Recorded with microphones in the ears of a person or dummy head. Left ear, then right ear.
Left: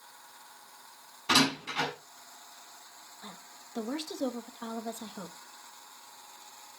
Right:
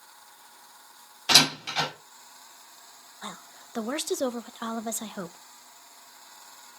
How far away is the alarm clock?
No alarm clock in this recording.